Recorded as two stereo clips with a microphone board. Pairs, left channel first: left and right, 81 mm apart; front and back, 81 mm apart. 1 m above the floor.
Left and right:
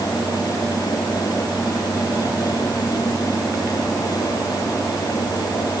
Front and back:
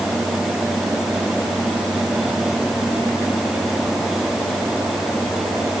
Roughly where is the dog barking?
I don't hear a dog barking.